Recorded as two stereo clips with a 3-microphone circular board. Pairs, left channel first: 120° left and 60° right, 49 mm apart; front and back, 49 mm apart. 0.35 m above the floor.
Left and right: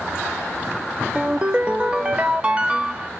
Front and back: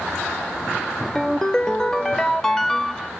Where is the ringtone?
55° right, 0.6 m.